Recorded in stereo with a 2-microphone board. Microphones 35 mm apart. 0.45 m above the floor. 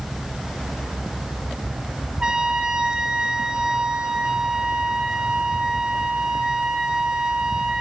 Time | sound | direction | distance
2.2 | a trumpet | 20° right (ahead or behind) | 1.2 m